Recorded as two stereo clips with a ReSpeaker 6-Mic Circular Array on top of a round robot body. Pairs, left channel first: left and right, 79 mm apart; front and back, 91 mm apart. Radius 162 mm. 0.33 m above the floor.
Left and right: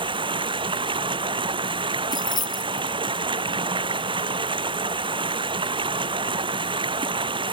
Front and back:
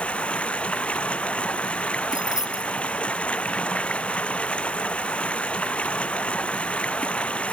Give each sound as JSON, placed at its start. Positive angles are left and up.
{"t": 0.0, "sound": "running water", "azimuth_deg": -80}
{"t": 2.1, "sound": "keys jangling", "azimuth_deg": 55}